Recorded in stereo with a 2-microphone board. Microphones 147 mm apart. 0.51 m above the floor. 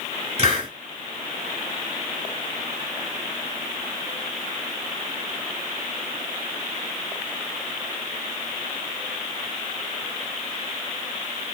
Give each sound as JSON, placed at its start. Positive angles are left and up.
{"t": 0.4, "sound": "a hiss", "side_deg": -45, "distance_m": 1.6}